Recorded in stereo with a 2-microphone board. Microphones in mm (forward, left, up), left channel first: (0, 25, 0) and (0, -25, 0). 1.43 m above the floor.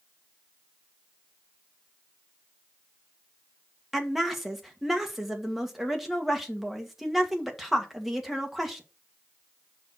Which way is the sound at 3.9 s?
5° right (ahead or behind).